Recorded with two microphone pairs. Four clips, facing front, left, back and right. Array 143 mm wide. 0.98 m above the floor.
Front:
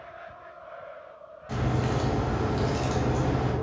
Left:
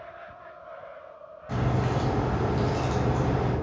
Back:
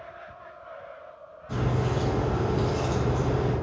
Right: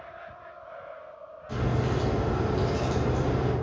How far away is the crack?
About 2.5 m.